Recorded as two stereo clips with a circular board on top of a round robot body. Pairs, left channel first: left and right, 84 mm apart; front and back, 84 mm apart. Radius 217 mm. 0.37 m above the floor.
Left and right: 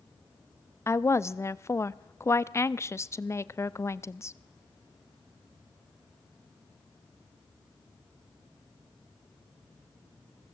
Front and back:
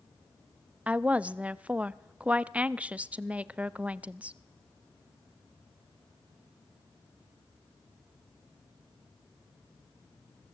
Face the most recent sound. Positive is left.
turn(degrees=115)